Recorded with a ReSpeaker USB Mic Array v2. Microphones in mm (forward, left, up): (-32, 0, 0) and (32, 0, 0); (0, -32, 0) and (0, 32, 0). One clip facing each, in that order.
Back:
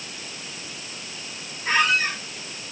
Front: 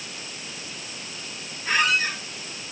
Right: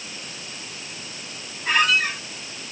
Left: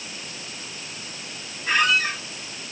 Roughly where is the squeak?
Behind right.